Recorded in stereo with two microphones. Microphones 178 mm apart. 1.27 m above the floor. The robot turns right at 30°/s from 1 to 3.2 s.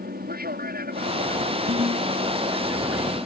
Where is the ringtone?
40° right (ahead or behind); by 2.1 s 30° right (ahead or behind).